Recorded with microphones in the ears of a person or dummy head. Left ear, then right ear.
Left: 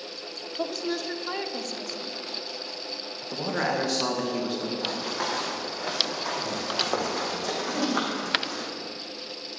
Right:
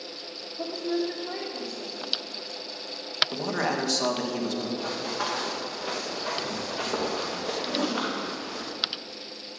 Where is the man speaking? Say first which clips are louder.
Left 1 dB; centre (ahead or behind), 2.0 m.